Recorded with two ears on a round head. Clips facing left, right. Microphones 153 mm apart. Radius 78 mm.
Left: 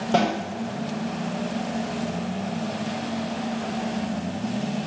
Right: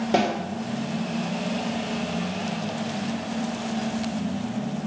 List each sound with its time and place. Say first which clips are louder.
0.1 s a snare drum: left 1 dB; 15° right (ahead or behind), 3 m